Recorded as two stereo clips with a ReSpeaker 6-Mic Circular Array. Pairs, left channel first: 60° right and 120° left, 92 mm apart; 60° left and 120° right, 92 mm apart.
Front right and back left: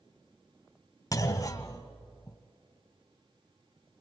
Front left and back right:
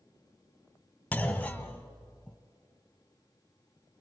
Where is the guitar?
I don't hear a guitar.